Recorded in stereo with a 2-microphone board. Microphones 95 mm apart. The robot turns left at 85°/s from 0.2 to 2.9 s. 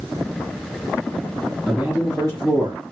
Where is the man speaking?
10° left, 2.5 m; by 2.8 s 85° right, 2.5 m.